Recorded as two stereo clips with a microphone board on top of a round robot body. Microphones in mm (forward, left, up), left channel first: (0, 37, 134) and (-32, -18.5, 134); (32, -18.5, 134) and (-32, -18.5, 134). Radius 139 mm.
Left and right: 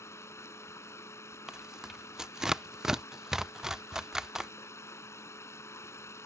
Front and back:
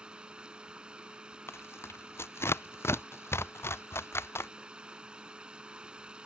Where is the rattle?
I don't hear a rattle.